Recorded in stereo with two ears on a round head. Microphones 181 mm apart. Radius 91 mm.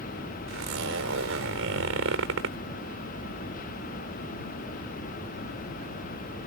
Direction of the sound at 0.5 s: 80° right.